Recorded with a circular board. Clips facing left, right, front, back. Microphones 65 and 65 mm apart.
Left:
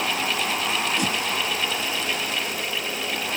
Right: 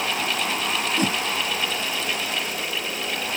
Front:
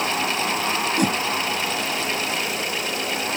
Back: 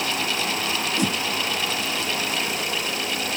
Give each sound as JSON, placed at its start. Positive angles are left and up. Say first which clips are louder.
{"t": 1.0, "sound": "a whoosh", "louder": "right 2 dB, front 3 dB", "azimuth_deg": -40}